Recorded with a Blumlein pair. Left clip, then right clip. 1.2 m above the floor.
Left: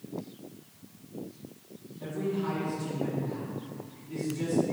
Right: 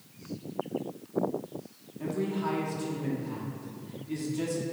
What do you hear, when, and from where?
2.0 s a man speaking: 30° right, 2 m